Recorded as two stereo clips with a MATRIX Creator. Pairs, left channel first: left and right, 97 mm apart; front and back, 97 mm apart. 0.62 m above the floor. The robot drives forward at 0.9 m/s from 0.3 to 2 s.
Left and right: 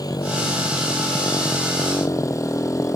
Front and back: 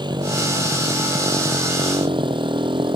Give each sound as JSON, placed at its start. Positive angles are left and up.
{"t": 0.0, "sound": "a motorcycle", "azimuth_deg": 140}